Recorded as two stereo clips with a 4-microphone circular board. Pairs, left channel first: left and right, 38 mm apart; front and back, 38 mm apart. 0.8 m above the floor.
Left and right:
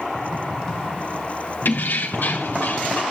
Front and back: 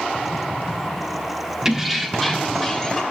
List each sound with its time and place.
1.6 s keys jangling: 105° left, 1.0 m; by 3.0 s 75° left, 1.8 m